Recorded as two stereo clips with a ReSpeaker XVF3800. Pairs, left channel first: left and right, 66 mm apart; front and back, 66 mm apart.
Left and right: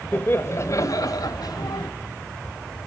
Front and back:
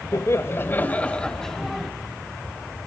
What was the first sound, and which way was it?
Laughter, 30° left.